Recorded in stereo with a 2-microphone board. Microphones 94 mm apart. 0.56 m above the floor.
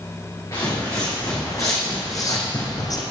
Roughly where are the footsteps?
Left.